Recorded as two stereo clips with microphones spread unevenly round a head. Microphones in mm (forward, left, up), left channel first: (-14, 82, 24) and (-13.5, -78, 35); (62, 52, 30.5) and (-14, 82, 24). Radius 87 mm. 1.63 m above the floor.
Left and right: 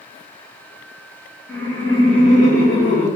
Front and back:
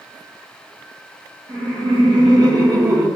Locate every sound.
1.5 s laughter: 175° left, 1.1 m; by 3.1 s 105° left, 1.4 m